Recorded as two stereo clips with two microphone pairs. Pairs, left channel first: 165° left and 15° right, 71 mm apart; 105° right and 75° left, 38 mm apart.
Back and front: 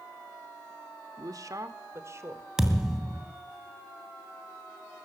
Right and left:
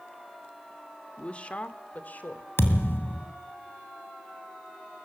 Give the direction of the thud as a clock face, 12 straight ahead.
3 o'clock.